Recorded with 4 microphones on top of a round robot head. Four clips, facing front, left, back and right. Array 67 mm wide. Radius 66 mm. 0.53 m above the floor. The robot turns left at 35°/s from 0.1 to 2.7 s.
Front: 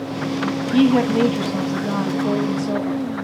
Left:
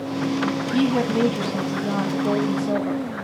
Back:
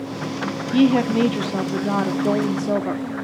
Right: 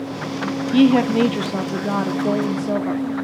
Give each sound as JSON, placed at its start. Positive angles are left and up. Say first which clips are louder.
{"t": 0.7, "sound": "a woman speaking", "louder": "right 7 dB, front 1 dB", "azimuth_deg": -95, "distance_m": 1.2}